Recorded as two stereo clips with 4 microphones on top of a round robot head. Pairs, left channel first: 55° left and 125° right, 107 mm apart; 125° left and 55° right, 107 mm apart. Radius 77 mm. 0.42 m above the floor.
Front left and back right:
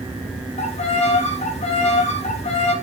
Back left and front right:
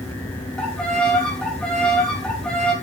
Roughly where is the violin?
Ahead left.